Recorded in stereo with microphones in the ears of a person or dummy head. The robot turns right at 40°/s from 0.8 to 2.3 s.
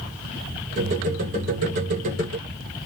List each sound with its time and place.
Only background noise.